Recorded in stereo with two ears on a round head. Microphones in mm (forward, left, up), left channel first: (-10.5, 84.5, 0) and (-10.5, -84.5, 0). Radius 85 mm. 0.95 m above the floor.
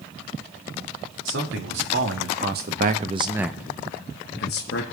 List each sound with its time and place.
1.2 s a man speaking: 70° right (ahead or behind), 2 m; by 4.8 s 60° left (ahead or behind), 1.3 m